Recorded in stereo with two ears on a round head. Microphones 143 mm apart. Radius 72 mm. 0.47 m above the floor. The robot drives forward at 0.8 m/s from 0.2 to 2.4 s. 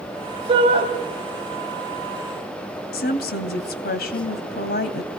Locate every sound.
0.5 s a shout: 35° right (ahead or behind), 2.5 m
2.9 s a woman speaking: 65° left (ahead or behind), 2.5 m